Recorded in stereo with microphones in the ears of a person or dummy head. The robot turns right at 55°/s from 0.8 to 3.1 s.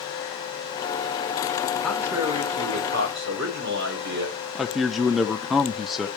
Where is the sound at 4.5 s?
Centre (ahead or behind), 0.6 m.